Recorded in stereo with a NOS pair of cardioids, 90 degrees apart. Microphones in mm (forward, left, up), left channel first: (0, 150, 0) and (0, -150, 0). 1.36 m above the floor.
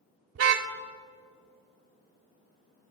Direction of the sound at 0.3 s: 60° right.